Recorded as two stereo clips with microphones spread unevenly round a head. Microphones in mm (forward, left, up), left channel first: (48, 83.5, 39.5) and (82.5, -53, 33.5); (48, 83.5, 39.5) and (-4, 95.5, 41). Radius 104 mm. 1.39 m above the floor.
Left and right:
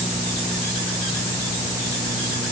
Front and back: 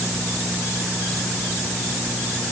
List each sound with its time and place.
Only background noise.